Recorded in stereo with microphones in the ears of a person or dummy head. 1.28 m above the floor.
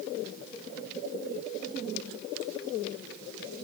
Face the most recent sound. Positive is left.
No sound to turn to.